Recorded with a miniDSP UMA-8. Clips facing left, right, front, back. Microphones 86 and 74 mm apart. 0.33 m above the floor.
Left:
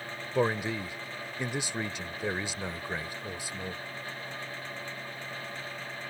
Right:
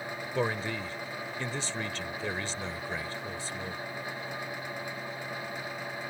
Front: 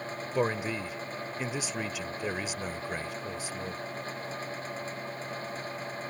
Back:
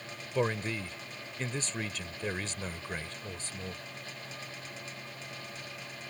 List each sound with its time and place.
0.3 s a man speaking: 55° left